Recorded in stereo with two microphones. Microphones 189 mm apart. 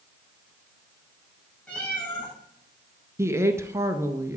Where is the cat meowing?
5° left (ahead or behind), 6 m.